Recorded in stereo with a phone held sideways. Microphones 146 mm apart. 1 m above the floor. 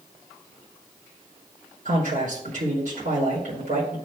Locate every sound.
1.9 s a man speaking: 70° right (ahead or behind), 4 m